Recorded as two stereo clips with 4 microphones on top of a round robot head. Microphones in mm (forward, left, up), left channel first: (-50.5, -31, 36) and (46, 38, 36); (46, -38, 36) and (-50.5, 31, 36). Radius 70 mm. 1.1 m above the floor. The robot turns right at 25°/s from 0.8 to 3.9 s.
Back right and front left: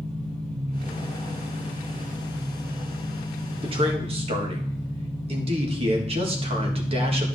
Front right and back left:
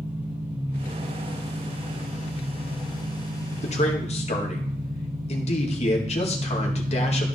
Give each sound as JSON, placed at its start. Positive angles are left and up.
{"t": 0.0, "sound": "an engine running", "azimuth_deg": 65, "distance_m": 5.0}
{"t": 3.6, "sound": "a man speaking", "azimuth_deg": -10, "distance_m": 1.7}